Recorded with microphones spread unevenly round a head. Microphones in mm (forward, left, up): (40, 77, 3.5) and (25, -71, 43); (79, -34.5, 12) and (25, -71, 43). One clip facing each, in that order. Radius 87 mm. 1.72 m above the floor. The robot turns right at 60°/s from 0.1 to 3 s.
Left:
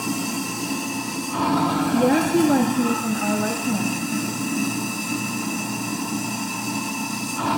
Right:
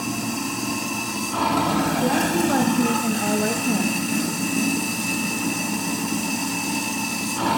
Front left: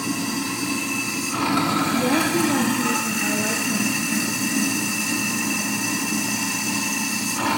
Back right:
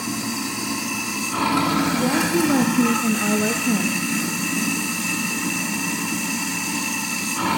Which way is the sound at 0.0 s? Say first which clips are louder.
Even, front left 1 dB; 110° left.